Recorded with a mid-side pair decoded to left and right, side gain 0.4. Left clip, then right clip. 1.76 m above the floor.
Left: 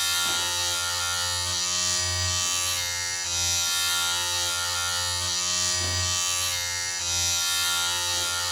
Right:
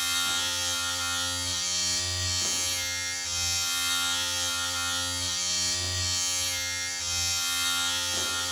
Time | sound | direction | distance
0.0 | a machine running | 65° left | 1.6 m